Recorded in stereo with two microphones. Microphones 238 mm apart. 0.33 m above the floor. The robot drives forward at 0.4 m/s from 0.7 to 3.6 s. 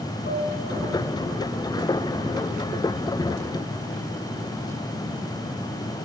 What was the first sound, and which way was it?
A piano, 30° left (ahead or behind).